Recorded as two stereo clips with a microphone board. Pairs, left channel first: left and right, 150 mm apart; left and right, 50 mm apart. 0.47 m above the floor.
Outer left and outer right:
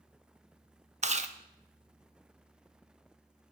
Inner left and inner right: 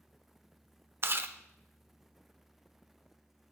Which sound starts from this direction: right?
Chewing, at 1.0 s.